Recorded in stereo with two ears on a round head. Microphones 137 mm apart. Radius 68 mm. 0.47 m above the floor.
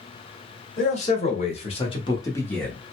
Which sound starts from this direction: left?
A man speaking, at 0.8 s.